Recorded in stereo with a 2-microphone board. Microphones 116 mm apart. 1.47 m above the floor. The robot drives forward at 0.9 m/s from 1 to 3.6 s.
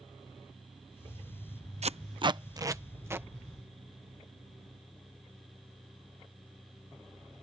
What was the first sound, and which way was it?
Tape being pulled, 65° right (ahead or behind).